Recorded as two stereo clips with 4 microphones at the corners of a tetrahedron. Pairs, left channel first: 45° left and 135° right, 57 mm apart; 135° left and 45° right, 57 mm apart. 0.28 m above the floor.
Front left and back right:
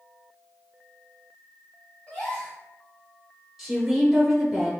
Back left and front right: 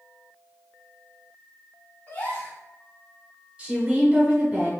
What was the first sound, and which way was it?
A gasp, 100° left.